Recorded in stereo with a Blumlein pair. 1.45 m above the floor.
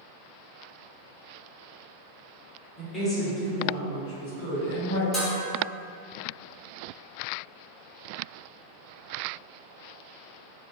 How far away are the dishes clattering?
About 1.3 m.